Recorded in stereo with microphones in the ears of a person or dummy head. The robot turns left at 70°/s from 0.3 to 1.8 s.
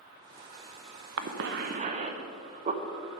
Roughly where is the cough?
Right.